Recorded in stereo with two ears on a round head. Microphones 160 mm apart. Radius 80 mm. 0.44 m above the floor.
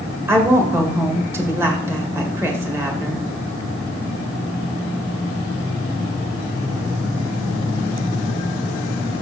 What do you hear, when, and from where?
0.3 s a woman speaking: 15° right (ahead or behind), 1.8 m